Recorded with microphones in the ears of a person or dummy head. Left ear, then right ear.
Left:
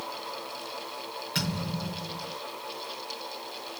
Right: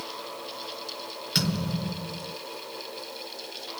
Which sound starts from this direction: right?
A thud, at 1.4 s.